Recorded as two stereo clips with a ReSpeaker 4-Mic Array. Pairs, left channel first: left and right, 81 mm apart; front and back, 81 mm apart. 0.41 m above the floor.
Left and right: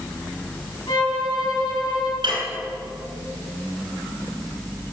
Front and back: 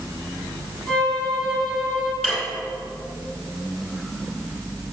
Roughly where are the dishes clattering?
Right.